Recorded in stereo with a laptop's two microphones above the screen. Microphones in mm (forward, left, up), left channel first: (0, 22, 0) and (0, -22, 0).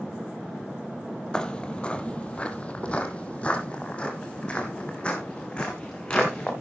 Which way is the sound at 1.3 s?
20° left (ahead or behind).